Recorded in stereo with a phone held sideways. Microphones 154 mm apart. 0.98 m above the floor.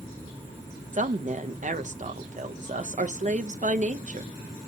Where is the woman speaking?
55° right (ahead or behind), 0.6 m.